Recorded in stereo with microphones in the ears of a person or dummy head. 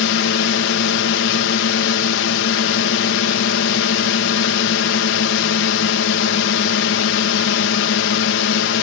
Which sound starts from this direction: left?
A drone, at 0.0 s.